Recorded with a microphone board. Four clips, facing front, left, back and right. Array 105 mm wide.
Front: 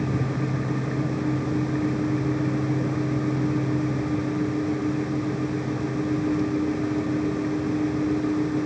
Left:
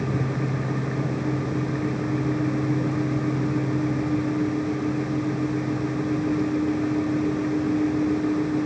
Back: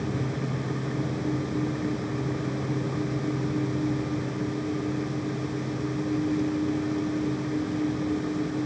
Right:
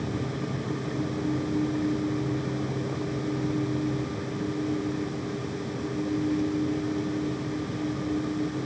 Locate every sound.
Only background noise.